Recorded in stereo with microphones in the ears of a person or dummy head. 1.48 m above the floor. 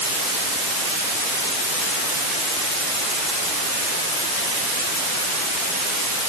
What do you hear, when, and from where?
Only background noise.